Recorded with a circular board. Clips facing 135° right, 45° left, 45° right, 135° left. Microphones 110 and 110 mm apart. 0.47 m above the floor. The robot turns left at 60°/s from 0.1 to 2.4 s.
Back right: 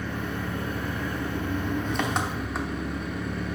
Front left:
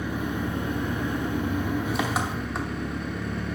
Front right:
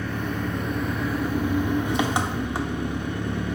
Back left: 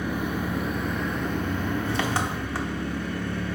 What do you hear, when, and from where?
0.0 s an engine running: 90° left, 0.9 m; by 3.6 s 50° right, 0.9 m